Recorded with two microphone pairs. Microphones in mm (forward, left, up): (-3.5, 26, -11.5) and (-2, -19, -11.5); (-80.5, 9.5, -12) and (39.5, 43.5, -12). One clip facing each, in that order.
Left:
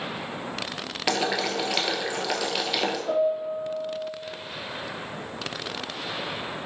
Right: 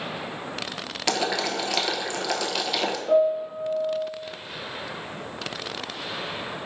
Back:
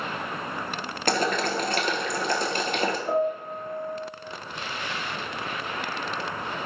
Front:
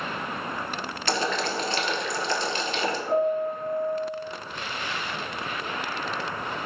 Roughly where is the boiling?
Behind.